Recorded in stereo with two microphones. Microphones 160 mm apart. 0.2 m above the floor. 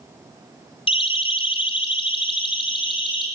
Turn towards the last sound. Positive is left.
turn(degrees=30)  # may be behind; listen again after turning